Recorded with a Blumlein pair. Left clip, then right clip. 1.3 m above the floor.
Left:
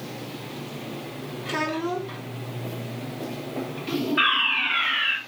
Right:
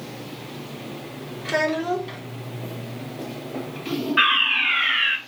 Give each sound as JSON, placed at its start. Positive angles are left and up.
{"t": 1.4, "sound": "a child speaking", "azimuth_deg": -35, "distance_m": 3.0}
{"t": 4.2, "sound": "a fire alarm", "azimuth_deg": -55, "distance_m": 4.0}